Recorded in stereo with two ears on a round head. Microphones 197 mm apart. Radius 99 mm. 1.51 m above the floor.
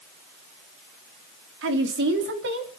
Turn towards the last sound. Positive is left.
turn(degrees=-60)  # may be behind; listen again after turning